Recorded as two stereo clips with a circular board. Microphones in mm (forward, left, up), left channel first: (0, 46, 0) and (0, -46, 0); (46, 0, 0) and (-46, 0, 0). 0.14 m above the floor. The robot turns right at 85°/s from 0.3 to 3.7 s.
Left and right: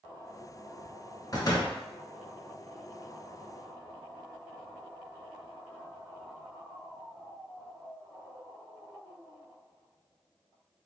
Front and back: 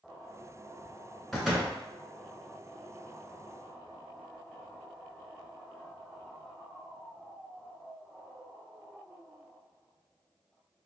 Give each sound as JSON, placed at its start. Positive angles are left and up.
{"t": 1.3, "sound": "a door slam", "azimuth_deg": 85, "distance_m": 1.0}